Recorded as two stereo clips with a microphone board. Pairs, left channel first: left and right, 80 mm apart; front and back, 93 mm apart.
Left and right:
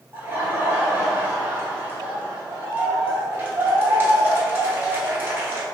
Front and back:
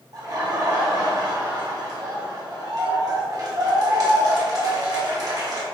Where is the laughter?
150° right, 1.2 m.